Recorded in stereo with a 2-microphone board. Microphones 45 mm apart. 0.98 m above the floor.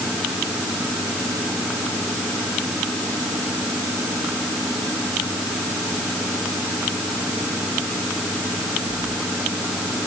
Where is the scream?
I don't hear a scream.